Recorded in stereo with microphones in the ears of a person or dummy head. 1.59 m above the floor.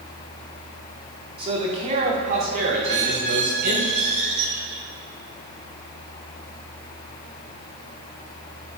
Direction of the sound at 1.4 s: 35° right (ahead or behind).